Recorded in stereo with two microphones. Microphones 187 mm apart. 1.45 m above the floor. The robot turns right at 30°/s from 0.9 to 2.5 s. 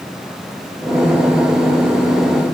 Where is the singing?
I don't hear singing.